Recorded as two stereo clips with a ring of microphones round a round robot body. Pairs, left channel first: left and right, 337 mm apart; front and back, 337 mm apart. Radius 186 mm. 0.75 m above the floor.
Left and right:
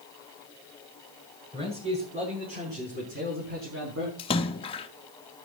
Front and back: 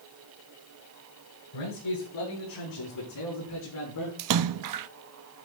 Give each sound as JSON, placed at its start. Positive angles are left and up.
{"t": 1.5, "sound": "a man speaking", "azimuth_deg": -15, "distance_m": 8.5}
{"t": 4.2, "sound": "a splash", "azimuth_deg": 165, "distance_m": 0.7}